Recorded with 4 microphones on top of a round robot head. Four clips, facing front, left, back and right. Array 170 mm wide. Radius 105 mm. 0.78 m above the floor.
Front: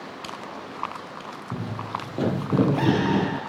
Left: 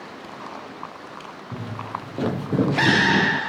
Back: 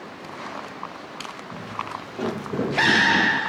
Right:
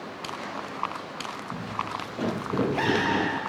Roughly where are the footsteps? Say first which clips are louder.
Left 2 dB, front 1 dB; ahead left.